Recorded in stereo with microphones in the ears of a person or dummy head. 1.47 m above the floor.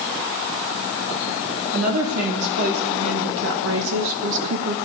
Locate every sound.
1.7 s a woman speaking: 80° right, 2.5 m; by 4.8 s 60° right (ahead or behind), 1.2 m